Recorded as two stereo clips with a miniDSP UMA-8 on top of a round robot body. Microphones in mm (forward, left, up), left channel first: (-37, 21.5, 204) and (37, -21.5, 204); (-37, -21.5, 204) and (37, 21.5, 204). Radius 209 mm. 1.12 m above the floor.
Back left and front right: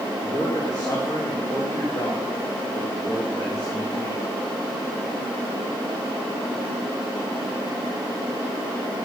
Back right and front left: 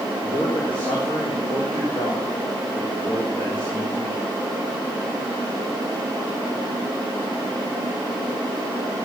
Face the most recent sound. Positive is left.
turn(degrees=-160)